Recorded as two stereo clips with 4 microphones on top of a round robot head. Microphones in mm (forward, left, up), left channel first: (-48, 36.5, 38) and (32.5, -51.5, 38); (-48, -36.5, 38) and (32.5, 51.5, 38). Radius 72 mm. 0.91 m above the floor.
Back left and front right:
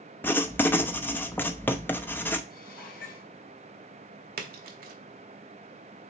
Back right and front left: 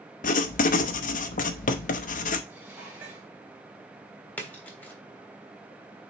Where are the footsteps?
No footsteps in this recording.